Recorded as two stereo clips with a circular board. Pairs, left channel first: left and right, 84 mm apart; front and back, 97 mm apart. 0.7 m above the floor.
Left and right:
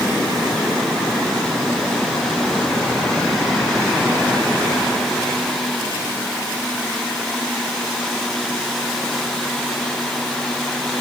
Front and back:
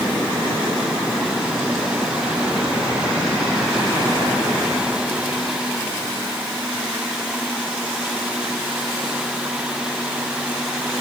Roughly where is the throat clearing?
I don't hear throat clearing.